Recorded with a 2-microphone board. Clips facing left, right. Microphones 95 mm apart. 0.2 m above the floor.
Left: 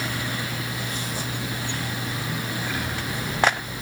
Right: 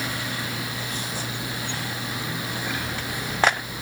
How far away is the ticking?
No ticking in this recording.